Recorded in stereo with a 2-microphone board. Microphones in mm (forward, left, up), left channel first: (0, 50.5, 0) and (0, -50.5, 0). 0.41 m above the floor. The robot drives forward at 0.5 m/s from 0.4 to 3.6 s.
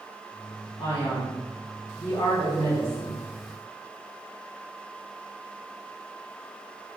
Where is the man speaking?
60° left (ahead or behind), 3 m; by 3.2 s 70° left (ahead or behind), 3 m.